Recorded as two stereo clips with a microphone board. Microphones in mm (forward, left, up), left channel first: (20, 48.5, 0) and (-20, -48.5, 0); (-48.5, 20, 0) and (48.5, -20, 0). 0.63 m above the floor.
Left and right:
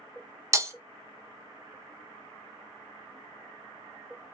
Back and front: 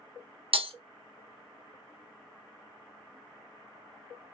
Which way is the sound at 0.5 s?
50° right.